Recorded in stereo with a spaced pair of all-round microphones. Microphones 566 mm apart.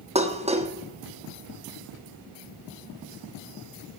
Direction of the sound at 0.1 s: 10° right (ahead or behind).